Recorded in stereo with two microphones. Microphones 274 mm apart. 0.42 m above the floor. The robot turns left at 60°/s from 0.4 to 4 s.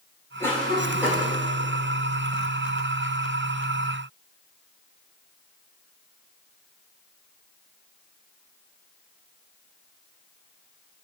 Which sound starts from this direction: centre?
A cough, at 0.4 s.